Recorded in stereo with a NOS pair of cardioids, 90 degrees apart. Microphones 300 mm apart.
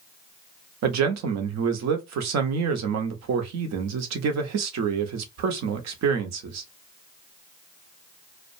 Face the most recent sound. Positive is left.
turn(degrees=-65)